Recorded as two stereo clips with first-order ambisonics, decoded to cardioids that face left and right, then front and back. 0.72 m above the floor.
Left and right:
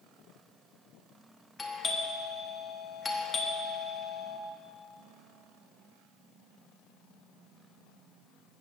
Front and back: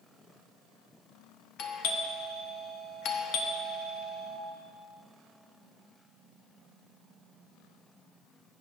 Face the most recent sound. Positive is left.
turn(degrees=15)